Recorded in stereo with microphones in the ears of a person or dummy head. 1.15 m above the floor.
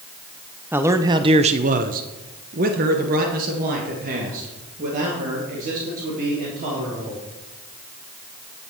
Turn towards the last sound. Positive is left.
turn(degrees=-40)  # may be behind; listen again after turning